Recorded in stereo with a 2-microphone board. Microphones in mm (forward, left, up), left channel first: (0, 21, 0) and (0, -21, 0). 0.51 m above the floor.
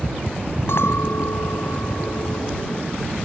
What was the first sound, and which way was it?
A clink, 70° left (ahead or behind).